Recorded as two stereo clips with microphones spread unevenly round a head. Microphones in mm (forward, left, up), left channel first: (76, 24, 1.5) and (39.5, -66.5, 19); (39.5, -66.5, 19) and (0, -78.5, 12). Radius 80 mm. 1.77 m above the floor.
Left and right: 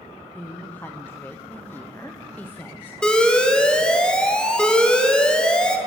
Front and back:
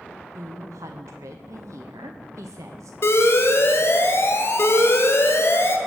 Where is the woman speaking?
150° left, 0.9 m.